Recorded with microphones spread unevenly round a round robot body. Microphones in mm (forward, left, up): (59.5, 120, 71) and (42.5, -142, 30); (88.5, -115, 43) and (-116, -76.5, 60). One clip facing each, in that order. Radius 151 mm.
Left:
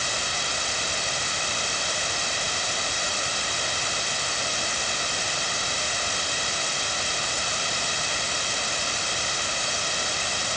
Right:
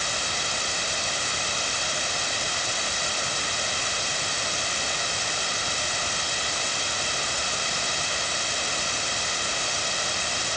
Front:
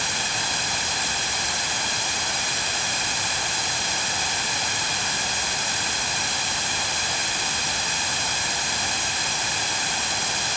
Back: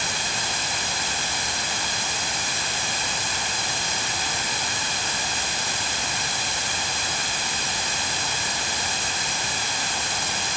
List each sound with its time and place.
Only background noise.